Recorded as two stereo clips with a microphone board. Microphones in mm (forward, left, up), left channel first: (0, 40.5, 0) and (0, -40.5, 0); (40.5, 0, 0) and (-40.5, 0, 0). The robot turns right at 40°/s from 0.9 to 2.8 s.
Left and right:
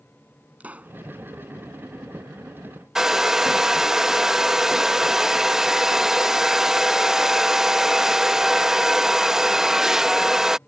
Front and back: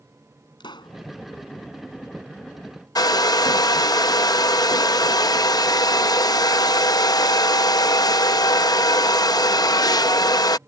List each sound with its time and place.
0.6 s a pop: 20° right; by 1.0 s 15° right
3.0 s a hair dryer: 10° right